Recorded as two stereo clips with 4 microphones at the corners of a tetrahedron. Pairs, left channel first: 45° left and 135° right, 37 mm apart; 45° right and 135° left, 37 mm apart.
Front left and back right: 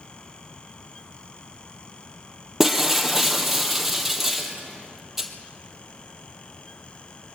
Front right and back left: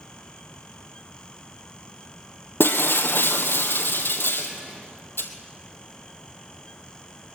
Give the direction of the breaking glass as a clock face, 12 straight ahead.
2 o'clock.